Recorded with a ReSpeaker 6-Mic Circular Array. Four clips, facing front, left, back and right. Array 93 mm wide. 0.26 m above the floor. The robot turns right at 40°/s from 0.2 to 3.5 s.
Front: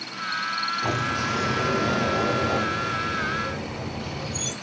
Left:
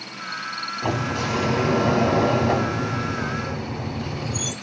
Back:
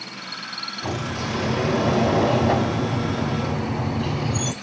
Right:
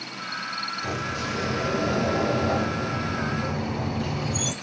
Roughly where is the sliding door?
Left.